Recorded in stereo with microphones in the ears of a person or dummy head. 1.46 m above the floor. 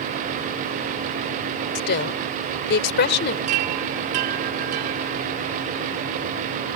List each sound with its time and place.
1.8 s a woman speaking: 70° left (ahead or behind)
3.5 s a chime: 30° right (ahead or behind)